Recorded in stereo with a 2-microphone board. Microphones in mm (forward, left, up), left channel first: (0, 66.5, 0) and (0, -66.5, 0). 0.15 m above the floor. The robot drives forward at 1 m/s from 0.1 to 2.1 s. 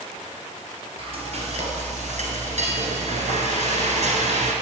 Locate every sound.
1.0 s frying: 45° right (ahead or behind), 1.5 m; by 4.5 s 60° right (ahead or behind), 1.2 m